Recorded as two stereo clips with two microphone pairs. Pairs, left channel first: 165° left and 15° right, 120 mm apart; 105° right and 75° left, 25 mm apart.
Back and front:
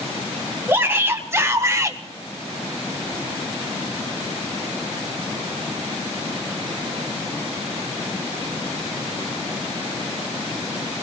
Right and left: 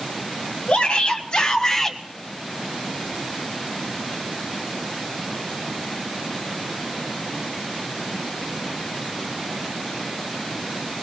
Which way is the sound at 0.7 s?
80° right.